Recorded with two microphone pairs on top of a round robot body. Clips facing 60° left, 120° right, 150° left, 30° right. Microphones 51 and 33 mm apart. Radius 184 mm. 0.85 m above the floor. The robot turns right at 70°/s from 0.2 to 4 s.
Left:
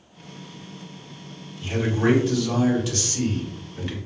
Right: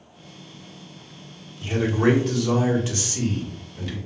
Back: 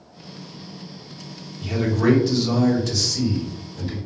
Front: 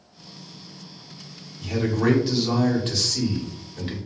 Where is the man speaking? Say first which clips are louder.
Right 2 dB, back 2 dB; 155° right, 1.4 m; by 4.0 s 10° left, 1.4 m.